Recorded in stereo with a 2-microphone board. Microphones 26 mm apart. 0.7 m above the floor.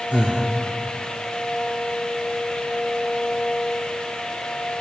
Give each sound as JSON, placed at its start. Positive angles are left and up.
{"t": 0.1, "sound": "breathing", "side_deg": -65, "distance_m": 1.4}